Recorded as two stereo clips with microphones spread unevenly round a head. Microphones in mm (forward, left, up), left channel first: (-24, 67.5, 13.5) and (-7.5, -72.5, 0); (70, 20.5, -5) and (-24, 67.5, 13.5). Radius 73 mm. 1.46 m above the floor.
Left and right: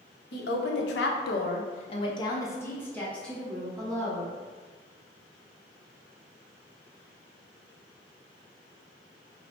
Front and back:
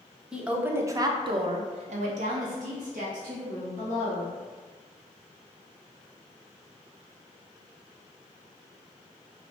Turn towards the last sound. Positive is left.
turn(degrees=-170)